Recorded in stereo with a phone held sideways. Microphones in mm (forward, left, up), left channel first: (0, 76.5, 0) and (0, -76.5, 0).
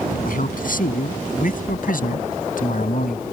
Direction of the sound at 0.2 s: 70° left (ahead or behind).